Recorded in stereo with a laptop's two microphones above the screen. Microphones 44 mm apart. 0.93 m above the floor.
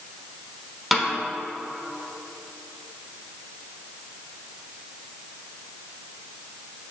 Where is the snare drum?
Centre (ahead or behind), 0.9 m.